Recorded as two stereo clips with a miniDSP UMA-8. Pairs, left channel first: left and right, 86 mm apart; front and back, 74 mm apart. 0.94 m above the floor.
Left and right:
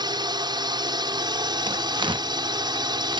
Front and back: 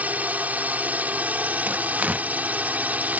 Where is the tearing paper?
110° right.